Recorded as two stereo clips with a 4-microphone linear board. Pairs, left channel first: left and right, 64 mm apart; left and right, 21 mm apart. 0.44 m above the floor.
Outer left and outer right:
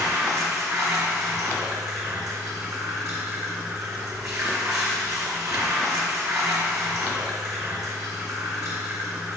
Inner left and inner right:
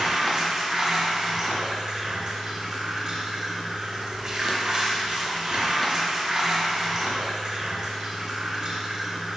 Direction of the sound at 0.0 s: 55° right (ahead or behind).